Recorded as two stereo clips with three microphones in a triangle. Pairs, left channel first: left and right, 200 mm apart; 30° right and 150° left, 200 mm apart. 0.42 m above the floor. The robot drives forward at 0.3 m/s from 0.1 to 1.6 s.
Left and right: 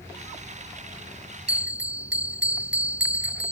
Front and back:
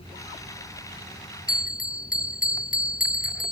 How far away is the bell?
About 1.0 m.